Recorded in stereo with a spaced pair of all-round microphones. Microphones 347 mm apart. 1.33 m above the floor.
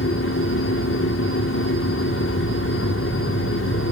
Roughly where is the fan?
Left.